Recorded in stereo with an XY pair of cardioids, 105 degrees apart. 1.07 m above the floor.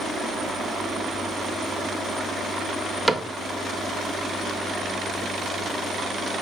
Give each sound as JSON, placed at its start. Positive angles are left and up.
{"t": 3.1, "sound": "a cupboard door", "azimuth_deg": -10, "distance_m": 1.1}